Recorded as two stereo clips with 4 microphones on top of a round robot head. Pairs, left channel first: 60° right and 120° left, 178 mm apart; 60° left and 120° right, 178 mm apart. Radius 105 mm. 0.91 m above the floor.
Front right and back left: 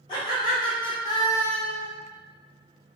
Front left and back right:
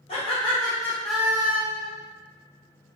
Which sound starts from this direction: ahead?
Laughter, at 0.1 s.